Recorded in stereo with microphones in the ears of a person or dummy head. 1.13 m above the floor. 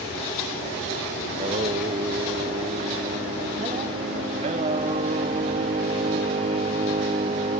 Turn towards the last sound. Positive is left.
turn(degrees=-30)  # may be behind; listen again after turning